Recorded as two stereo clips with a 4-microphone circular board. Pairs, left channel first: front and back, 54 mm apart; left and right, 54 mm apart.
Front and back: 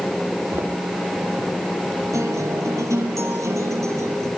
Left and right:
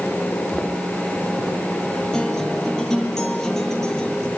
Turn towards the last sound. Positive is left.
turn(degrees=170)